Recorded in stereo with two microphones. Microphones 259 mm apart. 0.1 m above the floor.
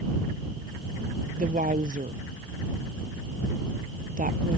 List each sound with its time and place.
1.4 s a woman speaking: 30° right (ahead or behind)